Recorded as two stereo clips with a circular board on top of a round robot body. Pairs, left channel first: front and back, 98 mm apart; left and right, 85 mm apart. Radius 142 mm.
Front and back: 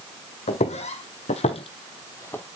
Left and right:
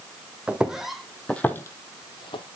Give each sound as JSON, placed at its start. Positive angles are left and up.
{"t": 0.5, "sound": "footsteps", "azimuth_deg": -10, "distance_m": 1.7}